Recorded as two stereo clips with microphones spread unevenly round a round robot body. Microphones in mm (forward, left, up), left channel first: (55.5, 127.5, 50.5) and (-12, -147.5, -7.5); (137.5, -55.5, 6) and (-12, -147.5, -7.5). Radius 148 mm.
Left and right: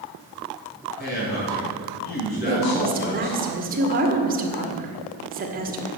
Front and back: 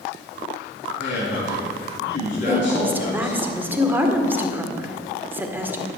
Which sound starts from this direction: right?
A woman speaking, at 2.5 s.